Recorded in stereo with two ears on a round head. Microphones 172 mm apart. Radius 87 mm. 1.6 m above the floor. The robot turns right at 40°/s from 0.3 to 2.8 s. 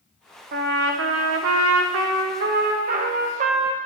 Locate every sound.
0.5 s a trumpet: 130° right, 0.8 m; by 3.8 s 40° right, 0.8 m